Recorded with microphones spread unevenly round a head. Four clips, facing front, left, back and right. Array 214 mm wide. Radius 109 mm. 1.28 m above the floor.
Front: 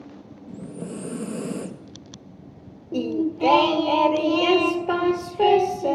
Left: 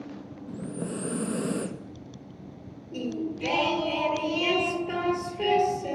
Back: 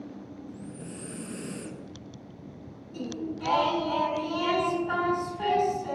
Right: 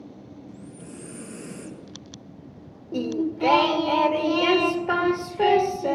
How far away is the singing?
About 1.9 m.